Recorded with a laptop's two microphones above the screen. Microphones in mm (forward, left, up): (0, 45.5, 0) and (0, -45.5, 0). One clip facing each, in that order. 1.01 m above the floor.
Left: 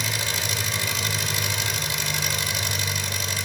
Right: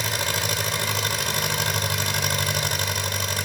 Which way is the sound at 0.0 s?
50° right (ahead or behind).